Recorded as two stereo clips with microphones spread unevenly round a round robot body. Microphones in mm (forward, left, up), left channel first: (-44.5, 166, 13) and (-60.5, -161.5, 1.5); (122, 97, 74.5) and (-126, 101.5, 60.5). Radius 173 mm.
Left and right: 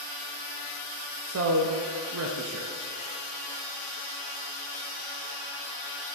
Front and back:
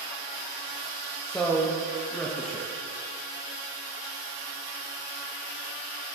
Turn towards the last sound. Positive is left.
turn(degrees=-90)